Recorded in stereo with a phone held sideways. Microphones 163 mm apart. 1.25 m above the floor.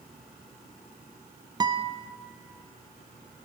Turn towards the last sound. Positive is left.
turn(degrees=-25)  # may be behind; listen again after turning